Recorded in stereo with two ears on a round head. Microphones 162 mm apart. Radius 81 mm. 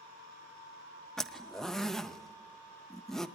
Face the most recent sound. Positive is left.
turn(degrees=0)  # may be behind; listen again after turning